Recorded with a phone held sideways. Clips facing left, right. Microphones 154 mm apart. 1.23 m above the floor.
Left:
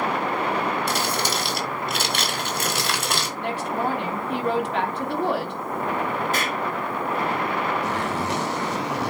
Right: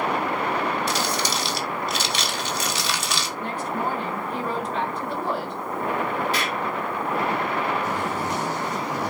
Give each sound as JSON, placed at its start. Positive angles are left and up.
{"t": 0.9, "sound": "crumpling", "side_deg": 55, "distance_m": 2.5}
{"t": 3.4, "sound": "a woman speaking", "side_deg": 70, "distance_m": 3.5}
{"t": 6.3, "sound": "an explosion", "side_deg": 45, "distance_m": 1.7}
{"t": 7.8, "sound": "a zipper", "side_deg": 75, "distance_m": 2.5}